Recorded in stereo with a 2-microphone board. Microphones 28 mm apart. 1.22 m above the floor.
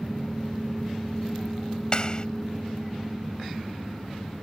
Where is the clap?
30° left (ahead or behind).